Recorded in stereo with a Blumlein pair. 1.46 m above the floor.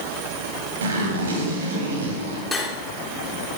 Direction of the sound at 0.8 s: 65° right.